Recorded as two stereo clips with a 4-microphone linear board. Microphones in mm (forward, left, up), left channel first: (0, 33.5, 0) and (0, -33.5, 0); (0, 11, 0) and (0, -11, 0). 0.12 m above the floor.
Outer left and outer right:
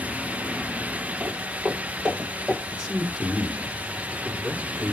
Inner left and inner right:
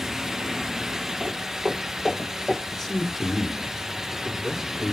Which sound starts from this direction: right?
Footsteps, at 1.2 s.